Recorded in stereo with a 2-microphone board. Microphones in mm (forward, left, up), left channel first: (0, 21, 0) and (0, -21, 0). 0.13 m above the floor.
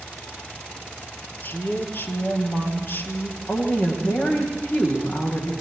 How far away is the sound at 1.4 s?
About 3.5 m.